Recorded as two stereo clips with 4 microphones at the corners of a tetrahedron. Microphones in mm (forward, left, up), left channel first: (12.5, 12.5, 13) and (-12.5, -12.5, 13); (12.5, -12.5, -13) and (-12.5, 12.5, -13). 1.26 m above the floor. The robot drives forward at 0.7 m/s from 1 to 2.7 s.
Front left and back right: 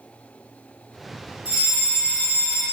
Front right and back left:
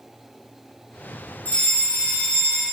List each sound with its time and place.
1.4 s a fire alarm: 75° right, 3.5 m; by 2.6 s 90° right, 3.5 m